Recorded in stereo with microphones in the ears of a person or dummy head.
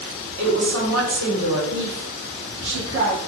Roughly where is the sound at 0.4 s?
Right.